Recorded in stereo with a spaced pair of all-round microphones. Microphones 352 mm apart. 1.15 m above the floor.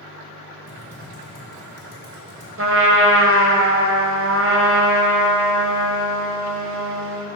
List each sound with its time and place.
0.7 s typing on a keyboard: 35° right (ahead or behind), 1.9 m
2.6 s a trumpet: 40° right (ahead or behind), 0.7 m